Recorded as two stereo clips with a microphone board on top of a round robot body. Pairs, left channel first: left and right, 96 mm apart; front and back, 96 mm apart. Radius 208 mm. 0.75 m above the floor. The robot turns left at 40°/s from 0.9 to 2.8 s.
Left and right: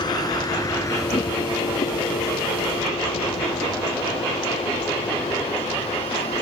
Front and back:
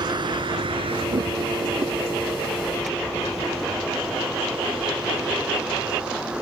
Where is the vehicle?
135° left; by 6.4 s 100° left.